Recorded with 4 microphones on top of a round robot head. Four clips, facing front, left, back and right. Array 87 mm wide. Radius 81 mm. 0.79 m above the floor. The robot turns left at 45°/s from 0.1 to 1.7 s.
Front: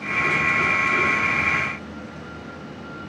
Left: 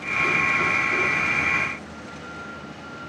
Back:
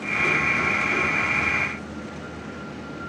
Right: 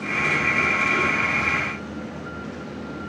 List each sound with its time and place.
Only background noise.